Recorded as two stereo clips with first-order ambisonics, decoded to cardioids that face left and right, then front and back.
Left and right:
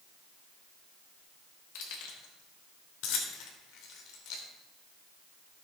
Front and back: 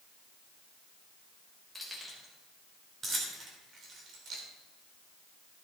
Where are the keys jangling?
90° left, 3 m; by 4.4 s 130° left, 2.5 m.